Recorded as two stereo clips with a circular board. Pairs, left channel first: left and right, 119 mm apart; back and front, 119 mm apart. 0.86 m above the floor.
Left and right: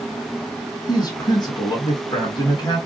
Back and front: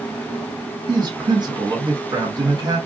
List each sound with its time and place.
0.9 s a man speaking: 45° left, 1.3 m